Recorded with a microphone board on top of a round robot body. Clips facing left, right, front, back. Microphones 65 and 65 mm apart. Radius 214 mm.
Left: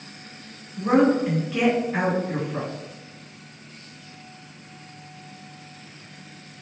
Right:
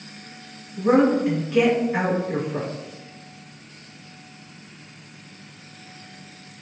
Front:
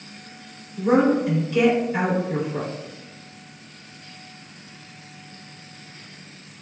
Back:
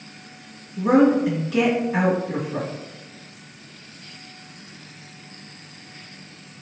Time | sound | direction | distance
0.8 | a woman speaking | straight behind | 1.8 m